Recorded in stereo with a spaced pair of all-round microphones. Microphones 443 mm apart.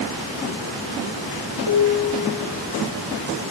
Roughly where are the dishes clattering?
Right.